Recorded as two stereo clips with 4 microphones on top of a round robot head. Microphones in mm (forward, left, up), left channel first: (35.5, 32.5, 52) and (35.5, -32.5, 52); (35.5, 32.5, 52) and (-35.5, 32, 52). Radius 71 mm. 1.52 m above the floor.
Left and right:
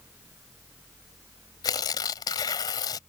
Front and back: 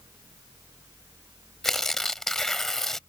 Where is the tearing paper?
85° left.